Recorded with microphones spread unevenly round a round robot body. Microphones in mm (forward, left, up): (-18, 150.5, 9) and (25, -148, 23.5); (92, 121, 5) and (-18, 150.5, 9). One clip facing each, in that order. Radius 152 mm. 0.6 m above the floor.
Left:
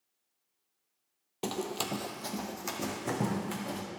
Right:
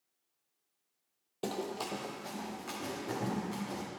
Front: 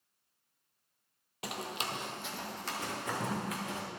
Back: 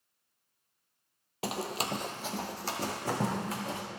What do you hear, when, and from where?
1.4 s running footsteps: 170° left, 0.6 m; by 3.8 s 110° left, 2.5 m